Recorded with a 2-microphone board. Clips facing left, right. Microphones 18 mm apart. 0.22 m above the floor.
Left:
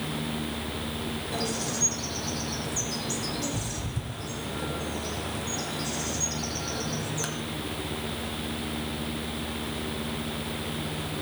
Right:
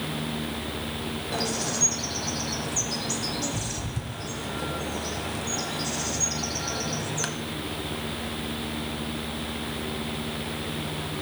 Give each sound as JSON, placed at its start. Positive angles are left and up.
{"t": 1.3, "sound": "a bird", "side_deg": -20, "distance_m": 1.3}